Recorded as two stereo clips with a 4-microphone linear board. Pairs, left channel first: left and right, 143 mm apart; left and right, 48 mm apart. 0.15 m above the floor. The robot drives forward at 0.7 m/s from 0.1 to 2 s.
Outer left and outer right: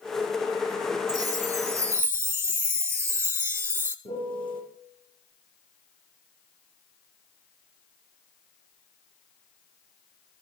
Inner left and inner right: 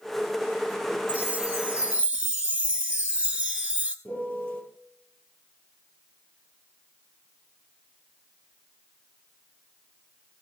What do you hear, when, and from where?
1.1 s a chime: 30° right (ahead or behind), 1.0 m; by 4.0 s 20° right (ahead or behind), 1.4 m
4.0 s a piano: 35° left (ahead or behind), 4.5 m